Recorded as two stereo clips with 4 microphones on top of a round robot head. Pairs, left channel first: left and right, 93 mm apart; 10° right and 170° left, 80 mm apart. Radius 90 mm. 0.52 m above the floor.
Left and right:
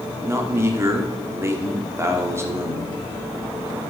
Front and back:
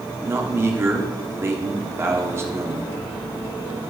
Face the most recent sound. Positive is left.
turn(degrees=-140)